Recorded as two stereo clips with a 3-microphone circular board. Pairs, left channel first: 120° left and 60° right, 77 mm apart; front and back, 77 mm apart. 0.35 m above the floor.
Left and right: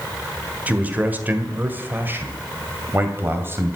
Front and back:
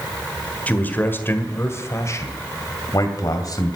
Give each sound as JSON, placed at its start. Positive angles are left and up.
{"t": 0.7, "sound": "a man speaking", "azimuth_deg": -30, "distance_m": 1.5}